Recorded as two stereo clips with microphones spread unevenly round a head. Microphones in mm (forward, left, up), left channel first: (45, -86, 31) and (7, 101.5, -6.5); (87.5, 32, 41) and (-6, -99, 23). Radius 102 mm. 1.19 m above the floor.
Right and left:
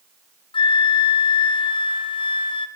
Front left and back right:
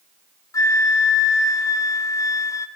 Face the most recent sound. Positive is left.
turn(degrees=-15)